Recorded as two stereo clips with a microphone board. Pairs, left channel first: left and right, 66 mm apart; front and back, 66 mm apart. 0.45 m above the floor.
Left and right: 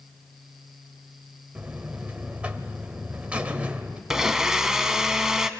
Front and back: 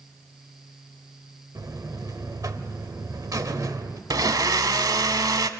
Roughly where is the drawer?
No drawer in this recording.